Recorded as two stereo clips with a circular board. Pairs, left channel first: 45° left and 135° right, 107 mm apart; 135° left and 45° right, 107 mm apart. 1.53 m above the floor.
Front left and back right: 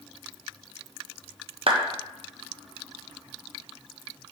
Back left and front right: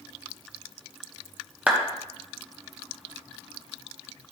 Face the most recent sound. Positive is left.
turn(degrees=-120)